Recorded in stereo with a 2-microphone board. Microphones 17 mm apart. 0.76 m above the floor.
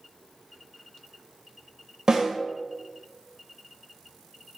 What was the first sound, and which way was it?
A snare drum, 60° right (ahead or behind).